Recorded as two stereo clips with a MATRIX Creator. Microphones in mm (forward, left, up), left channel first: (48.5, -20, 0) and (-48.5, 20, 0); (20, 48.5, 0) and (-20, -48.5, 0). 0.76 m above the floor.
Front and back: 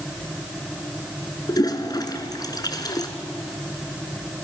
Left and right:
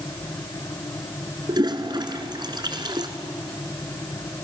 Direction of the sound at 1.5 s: 70° right.